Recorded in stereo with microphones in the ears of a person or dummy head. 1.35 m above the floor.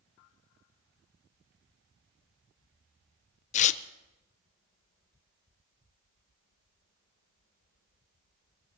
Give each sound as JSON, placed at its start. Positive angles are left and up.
{"t": 3.5, "sound": "tearing paper", "side_deg": 35, "distance_m": 0.6}